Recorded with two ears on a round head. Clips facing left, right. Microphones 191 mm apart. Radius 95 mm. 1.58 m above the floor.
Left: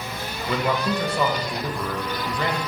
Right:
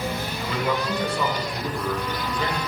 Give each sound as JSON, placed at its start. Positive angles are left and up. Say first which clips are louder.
{"t": 0.5, "sound": "a man speaking", "louder": "left 2 dB", "side_deg": 50, "distance_m": 1.5}